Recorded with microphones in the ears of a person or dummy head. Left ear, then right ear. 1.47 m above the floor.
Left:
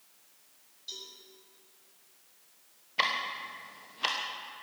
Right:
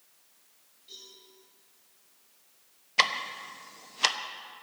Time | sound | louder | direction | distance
0.9 | a cowbell | left 5 dB | 40° left (ahead or behind) | 6 m
3.0 | ticking | right 3 dB | 80° right | 1.1 m